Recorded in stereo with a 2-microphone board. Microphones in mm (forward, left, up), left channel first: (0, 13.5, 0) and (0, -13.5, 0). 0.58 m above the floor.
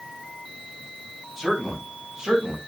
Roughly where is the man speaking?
Centre.